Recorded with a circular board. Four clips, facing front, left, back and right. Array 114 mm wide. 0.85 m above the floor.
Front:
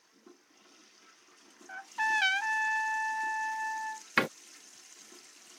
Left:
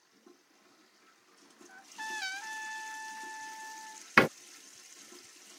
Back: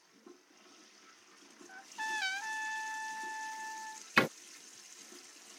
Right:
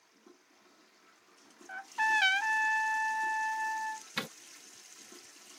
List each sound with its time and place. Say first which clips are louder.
1.7 s a trumpet: right 12 dB, front 9 dB; 55° right
4.2 s a door slam: left 18 dB, even; 90° left